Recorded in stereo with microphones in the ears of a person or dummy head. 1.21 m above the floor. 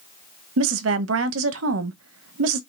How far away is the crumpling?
No crumpling in this recording.